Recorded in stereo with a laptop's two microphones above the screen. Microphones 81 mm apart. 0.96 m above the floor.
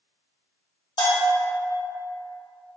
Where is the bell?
70° left (ahead or behind), 1.0 m.